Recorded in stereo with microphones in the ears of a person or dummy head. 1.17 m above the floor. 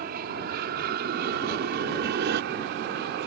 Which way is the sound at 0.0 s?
50° right (ahead or behind).